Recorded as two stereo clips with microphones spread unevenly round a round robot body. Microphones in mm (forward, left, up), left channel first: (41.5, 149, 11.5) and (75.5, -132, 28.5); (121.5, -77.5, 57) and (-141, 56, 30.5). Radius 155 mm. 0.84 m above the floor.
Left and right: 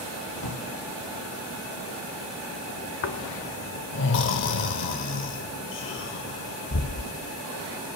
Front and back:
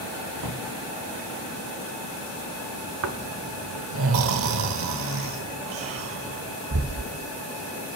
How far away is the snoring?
About 0.6 m.